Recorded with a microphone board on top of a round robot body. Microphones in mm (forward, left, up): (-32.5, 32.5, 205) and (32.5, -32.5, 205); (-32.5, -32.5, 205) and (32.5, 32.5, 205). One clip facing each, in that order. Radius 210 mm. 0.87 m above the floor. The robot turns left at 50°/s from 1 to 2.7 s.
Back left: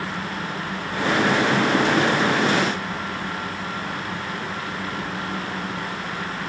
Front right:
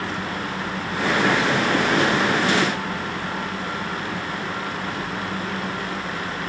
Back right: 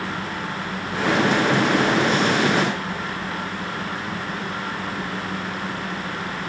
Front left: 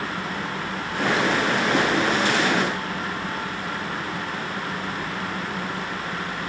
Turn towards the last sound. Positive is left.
No sound to turn to.